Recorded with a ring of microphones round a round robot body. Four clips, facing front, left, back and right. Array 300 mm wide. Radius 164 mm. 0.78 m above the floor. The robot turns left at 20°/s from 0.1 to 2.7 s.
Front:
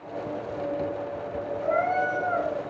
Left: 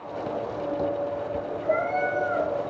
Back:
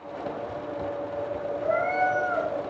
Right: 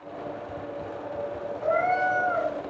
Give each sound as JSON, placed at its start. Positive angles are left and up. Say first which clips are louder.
{"t": 1.6, "sound": "a cat meowing", "louder": "right 2 dB, even", "azimuth_deg": -85, "distance_m": 3.5}